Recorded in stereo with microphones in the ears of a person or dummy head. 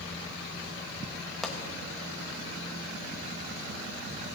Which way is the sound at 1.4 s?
5° left (ahead or behind).